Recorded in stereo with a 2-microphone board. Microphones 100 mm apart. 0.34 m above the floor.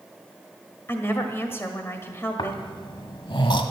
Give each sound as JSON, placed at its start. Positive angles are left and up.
{"t": 0.9, "sound": "a woman speaking", "side_deg": 25, "distance_m": 1.7}
{"t": 2.4, "sound": "snoring", "side_deg": 60, "distance_m": 1.3}